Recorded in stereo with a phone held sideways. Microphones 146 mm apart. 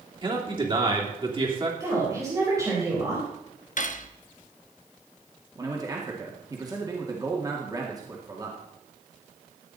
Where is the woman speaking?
20° right (ahead or behind), 4 m.